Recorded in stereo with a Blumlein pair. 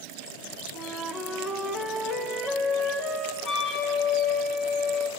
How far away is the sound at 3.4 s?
About 3.5 m.